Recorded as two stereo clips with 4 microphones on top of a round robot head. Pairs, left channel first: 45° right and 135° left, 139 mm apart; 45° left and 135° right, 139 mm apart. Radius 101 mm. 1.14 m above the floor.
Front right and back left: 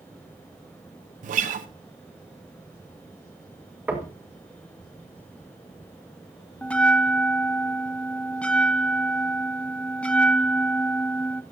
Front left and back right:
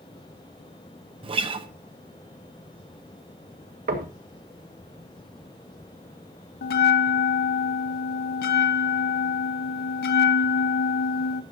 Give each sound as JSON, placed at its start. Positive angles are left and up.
{"t": 1.2, "sound": "a guitar", "azimuth_deg": 170, "distance_m": 0.8}
{"t": 3.9, "sound": "knocking", "azimuth_deg": -145, "distance_m": 1.7}
{"t": 6.6, "sound": "a bell", "azimuth_deg": 35, "distance_m": 0.6}